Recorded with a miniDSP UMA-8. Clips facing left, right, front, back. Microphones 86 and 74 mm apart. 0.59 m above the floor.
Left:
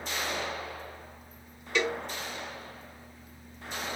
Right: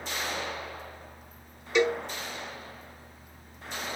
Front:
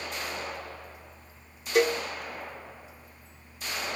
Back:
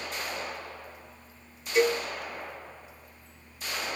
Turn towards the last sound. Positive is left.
turn(degrees=-20)